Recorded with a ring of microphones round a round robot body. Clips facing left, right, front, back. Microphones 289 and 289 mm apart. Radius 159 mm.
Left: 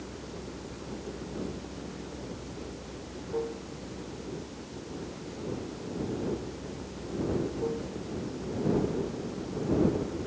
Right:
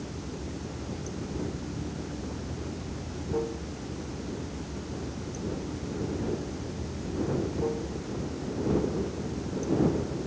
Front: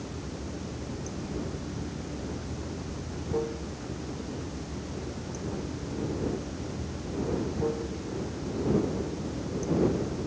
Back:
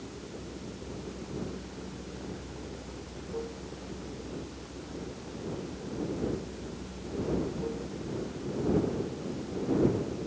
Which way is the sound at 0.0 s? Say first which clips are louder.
Right 3 dB, front 4 dB; 40° right.